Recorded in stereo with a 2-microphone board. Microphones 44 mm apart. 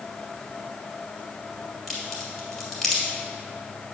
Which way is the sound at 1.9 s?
5° left (ahead or behind).